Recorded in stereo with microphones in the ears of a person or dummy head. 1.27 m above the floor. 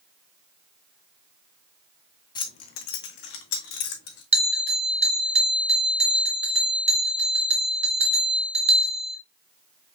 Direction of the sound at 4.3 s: 30° right (ahead or behind).